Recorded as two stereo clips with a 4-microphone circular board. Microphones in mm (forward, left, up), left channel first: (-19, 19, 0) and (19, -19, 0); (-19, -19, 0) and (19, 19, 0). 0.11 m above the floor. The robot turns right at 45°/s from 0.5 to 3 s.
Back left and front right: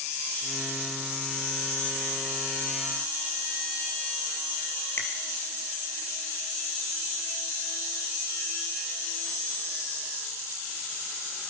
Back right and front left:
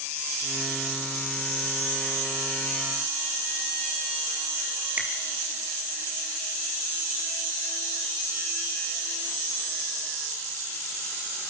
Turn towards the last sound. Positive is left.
turn(degrees=105)